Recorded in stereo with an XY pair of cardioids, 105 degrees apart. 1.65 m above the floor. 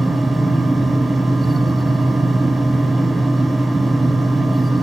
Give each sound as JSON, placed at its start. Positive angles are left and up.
{"t": 0.0, "sound": "a fan", "azimuth_deg": -20, "distance_m": 0.8}